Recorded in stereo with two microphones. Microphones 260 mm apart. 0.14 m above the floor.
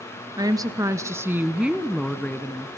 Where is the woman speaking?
15° right (ahead or behind), 1.9 m; by 2.7 s 10° left (ahead or behind), 1.6 m.